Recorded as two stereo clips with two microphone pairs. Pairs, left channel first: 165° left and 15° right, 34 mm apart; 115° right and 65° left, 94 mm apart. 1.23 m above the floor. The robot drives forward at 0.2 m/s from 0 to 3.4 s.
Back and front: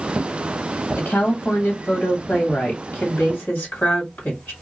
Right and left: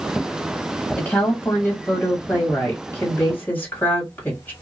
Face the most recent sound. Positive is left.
turn(degrees=175)